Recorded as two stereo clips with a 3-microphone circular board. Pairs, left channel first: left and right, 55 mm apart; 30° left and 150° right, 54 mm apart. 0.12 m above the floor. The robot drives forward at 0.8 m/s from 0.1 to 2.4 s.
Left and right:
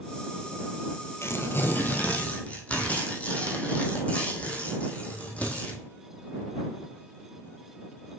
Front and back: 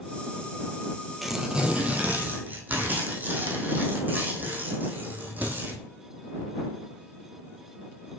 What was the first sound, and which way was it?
Tearing paper, 120° left.